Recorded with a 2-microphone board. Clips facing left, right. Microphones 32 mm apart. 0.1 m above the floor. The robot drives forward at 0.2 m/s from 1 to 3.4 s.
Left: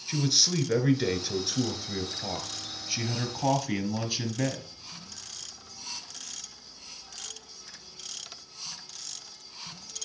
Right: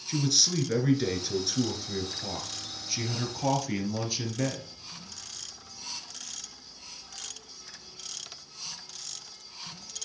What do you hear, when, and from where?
0.1 s a man speaking: 15° left (ahead or behind), 1.3 m; by 4.6 s 10° left (ahead or behind), 1.5 m